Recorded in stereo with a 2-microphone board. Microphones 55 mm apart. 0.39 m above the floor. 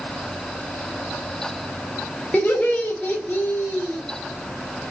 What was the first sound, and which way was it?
Laughter, 20° left (ahead or behind).